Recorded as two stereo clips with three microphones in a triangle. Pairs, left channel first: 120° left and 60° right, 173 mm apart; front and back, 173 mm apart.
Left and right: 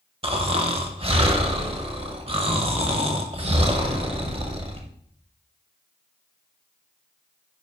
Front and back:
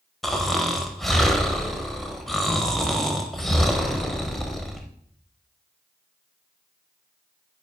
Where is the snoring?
90° right, 0.8 m.